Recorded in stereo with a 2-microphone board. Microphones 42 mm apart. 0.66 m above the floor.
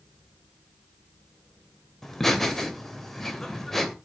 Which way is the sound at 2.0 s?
10° left (ahead or behind).